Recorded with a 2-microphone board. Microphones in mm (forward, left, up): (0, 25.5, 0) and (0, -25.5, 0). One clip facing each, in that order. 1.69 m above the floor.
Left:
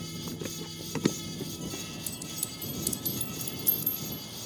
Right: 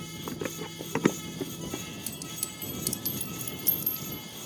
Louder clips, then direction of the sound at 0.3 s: Right 6 dB; 40° right (ahead or behind).